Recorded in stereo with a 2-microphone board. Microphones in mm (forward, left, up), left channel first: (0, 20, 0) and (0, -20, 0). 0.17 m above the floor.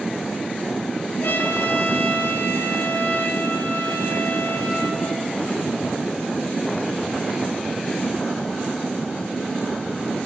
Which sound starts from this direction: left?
A trumpet, at 1.2 s.